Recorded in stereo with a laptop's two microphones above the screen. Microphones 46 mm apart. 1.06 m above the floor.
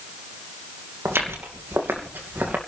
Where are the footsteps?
65° right (ahead or behind), 2.5 m; by 2.6 s 45° right (ahead or behind), 2.5 m.